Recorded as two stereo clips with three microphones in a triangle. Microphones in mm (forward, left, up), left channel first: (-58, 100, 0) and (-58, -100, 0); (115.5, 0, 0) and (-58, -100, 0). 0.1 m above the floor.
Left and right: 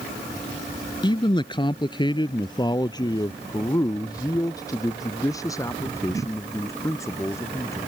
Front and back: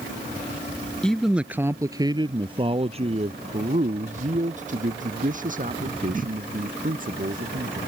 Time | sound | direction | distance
1.0 | a man speaking | 110° left | ?